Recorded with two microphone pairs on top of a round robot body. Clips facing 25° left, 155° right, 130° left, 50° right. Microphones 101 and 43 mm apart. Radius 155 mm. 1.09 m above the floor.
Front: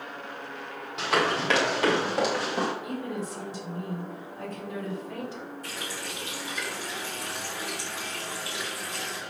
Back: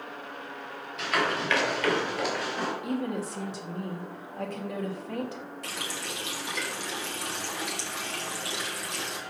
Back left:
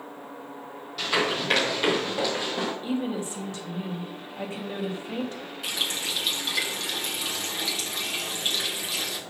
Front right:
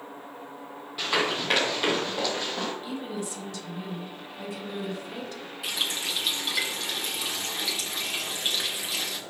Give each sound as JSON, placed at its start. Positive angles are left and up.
{"t": 1.0, "sound": "running footsteps", "azimuth_deg": 30, "distance_m": 3.0}
{"t": 2.8, "sound": "a woman speaking", "azimuth_deg": -170, "distance_m": 3.0}
{"t": 5.6, "sound": "a running tap", "azimuth_deg": -135, "distance_m": 2.0}